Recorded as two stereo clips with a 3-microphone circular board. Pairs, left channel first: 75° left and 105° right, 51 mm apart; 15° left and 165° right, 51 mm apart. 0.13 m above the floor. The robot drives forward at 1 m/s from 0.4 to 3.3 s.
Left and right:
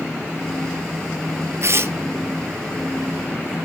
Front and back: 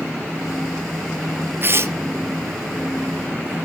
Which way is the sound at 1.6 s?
120° right.